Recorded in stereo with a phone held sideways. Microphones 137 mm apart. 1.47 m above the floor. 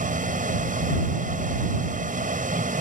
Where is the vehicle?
65° right (ahead or behind).